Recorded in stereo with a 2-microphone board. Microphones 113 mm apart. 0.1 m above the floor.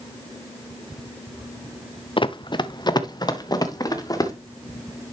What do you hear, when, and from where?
2.2 s running footsteps: 50° left (ahead or behind), 0.6 m; by 4.3 s 35° left (ahead or behind), 2.0 m